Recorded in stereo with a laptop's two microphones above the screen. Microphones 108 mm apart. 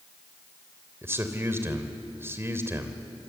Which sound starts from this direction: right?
A man speaking, at 1.0 s.